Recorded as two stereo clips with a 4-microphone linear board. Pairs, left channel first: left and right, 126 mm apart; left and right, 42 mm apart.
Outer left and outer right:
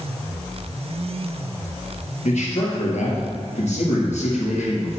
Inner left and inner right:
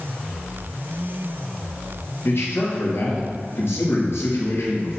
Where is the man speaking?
70° left (ahead or behind), 2.5 m.